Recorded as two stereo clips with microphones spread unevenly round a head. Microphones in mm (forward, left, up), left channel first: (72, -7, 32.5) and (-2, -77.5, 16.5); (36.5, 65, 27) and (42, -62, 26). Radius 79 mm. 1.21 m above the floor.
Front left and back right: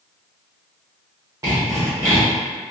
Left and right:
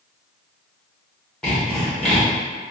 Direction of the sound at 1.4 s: 165° left.